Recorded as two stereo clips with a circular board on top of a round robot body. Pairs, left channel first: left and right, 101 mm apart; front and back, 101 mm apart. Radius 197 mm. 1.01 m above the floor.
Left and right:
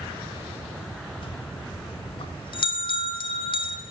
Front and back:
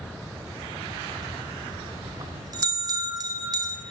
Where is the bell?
125° left, 0.6 m.